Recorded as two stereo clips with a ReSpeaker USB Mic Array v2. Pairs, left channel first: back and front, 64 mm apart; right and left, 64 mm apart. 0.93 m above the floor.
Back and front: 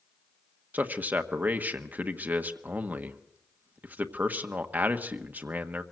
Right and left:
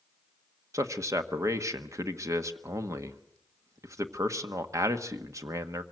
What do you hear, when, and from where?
0.7 s a man speaking: 60° left, 1.3 m